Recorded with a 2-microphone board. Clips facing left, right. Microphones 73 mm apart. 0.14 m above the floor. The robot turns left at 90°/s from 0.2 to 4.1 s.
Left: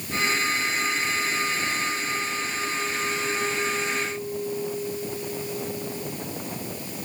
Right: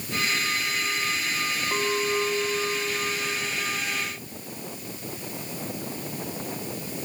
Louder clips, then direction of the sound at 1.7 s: Right 3 dB; 55° right.